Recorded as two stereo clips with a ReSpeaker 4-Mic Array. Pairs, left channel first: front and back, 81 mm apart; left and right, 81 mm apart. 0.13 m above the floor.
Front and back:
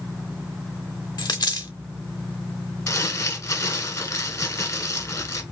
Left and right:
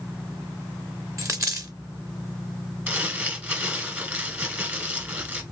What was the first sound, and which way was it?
A dropped coin, 35° right.